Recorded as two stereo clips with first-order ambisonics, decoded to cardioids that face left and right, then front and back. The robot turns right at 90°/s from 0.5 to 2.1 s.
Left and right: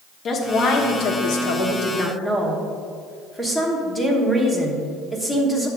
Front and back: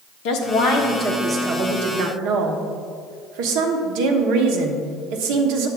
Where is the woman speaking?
30° left, 1.2 m; by 5.7 s 175° left, 1.2 m.